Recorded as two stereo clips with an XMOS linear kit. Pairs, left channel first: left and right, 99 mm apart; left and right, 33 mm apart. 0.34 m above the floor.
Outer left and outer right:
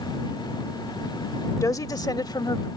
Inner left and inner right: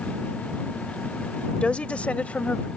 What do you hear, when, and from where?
1.6 s a woman speaking: 35° left (ahead or behind); by 2.7 s 45° left (ahead or behind)